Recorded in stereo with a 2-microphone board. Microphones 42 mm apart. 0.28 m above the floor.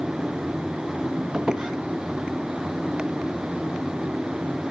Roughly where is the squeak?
Centre.